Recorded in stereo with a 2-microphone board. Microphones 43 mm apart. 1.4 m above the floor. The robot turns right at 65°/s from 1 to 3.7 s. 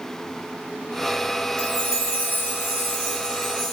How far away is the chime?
About 2.0 m.